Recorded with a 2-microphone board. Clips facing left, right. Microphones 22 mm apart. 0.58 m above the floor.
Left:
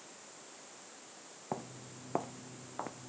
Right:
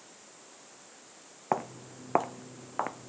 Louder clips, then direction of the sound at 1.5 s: Right 10 dB; 60° right (ahead or behind).